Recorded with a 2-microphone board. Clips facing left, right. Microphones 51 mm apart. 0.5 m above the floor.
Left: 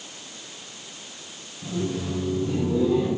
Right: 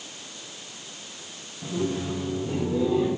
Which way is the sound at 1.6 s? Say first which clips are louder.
Even; 35° right (ahead or behind).